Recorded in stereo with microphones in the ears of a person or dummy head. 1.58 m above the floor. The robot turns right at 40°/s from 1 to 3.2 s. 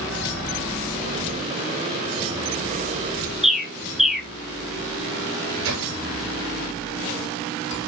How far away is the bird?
About 0.7 m.